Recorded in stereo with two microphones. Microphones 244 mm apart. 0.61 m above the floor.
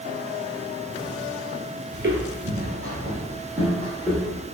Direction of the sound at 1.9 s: 45° right (ahead or behind).